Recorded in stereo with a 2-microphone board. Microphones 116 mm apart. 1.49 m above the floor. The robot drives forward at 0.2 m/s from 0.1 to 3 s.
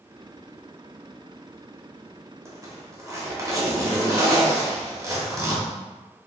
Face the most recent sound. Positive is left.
turn(degrees=-25)  # may be behind; listen again after turning